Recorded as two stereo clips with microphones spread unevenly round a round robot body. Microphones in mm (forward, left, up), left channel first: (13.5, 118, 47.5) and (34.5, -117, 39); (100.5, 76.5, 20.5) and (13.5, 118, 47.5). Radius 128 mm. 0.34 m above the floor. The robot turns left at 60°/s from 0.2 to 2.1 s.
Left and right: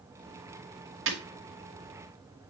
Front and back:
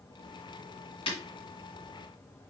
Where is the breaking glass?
50° right, 2.5 m; by 1.2 s 60° right, 2.5 m.